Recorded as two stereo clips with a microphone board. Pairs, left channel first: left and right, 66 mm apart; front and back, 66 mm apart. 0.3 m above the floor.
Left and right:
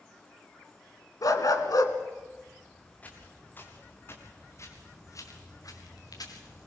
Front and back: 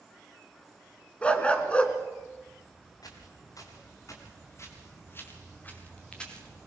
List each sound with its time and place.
1.2 s a dog barking: 70° left, 1.5 m
3.0 s footsteps: 25° left, 5 m; by 6.7 s 85° left, 4 m